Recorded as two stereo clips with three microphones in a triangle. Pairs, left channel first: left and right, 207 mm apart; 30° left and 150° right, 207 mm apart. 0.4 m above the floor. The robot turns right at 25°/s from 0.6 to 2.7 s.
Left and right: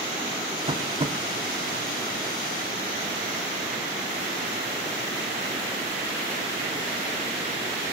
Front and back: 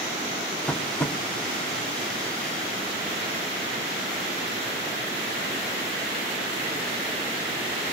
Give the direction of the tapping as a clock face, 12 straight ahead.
2 o'clock.